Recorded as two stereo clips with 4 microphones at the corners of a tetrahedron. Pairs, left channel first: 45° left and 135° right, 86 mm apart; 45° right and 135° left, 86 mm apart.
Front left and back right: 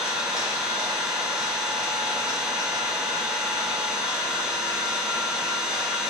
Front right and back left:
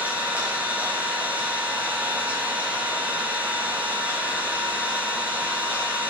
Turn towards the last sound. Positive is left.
turn(degrees=165)